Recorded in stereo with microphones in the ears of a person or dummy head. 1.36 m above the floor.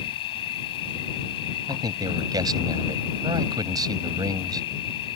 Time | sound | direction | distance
0.0 | an insect | 30° left (ahead or behind) | ?
1.7 | a man speaking | 25° right (ahead or behind) | ?